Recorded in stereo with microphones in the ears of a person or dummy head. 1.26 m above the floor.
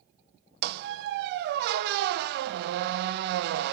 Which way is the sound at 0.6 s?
60° right (ahead or behind).